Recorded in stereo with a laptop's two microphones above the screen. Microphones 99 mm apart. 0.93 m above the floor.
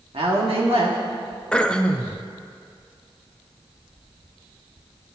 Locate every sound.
0.1 s a woman speaking: 75° right (ahead or behind), 1.7 m
1.5 s throat clearing: 10° left (ahead or behind), 0.7 m